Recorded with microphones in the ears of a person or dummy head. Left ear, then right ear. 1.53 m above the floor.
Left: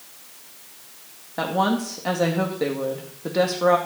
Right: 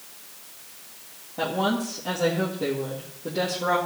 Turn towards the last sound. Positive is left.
turn(degrees=65)  # may be behind; listen again after turning